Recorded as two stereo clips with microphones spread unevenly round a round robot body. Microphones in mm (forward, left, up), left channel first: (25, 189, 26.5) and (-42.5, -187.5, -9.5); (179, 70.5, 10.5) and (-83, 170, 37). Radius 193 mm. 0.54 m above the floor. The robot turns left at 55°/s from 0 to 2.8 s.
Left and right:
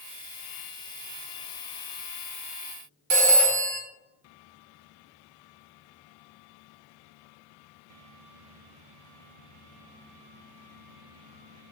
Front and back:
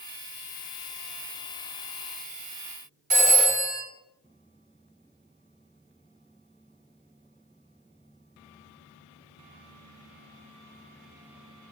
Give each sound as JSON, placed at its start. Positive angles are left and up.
{"t": 3.1, "sound": "a phone ringing", "azimuth_deg": -135, "distance_m": 1.2}